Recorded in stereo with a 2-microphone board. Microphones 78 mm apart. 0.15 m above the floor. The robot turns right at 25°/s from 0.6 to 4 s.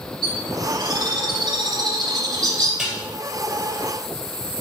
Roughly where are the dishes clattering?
Centre.